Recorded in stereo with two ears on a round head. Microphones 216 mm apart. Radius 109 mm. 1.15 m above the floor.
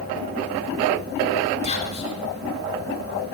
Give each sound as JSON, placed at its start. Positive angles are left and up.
{"t": 1.6, "sound": "whispering", "side_deg": 30, "distance_m": 3.5}